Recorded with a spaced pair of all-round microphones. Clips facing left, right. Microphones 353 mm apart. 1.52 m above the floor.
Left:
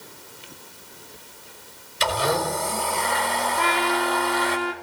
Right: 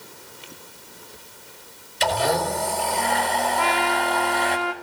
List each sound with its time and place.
2.0 s a blender: 15° left (ahead or behind), 5.5 m
3.6 s a trumpet: 25° left (ahead or behind), 1.0 m